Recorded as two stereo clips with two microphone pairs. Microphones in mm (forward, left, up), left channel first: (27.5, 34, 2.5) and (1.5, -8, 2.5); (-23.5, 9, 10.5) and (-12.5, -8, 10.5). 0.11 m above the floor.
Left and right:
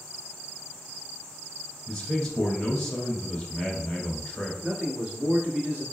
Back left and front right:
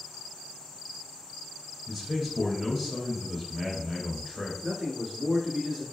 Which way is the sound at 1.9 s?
5° right.